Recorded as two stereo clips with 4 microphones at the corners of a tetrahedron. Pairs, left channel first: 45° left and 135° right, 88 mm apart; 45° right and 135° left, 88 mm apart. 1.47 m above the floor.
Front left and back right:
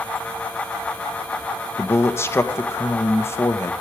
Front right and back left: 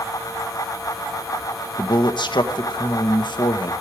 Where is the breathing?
I don't hear breathing.